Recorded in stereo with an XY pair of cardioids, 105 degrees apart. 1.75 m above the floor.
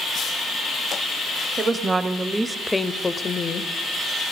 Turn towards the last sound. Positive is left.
turn(degrees=50)